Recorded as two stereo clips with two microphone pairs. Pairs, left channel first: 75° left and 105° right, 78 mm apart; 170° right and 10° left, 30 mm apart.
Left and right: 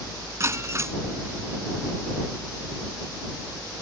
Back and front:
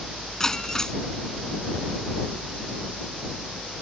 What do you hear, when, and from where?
0.4 s breaking glass: 115° right